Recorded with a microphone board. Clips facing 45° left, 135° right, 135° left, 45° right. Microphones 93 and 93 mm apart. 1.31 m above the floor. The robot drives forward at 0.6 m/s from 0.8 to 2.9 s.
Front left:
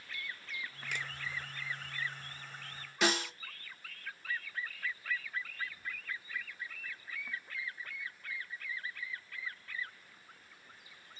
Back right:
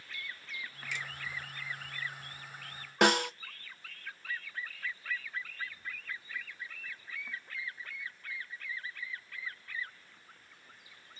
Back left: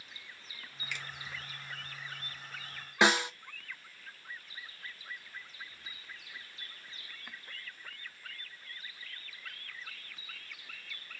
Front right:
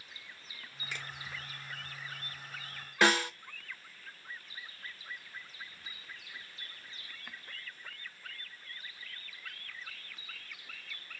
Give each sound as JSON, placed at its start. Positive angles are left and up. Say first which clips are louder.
{"t": 0.9, "sound": "a finger snap", "louder": "even, even", "azimuth_deg": 10, "distance_m": 1.5}
{"t": 3.0, "sound": "a snare drum", "louder": "back right 6 dB, even", "azimuth_deg": -155, "distance_m": 0.6}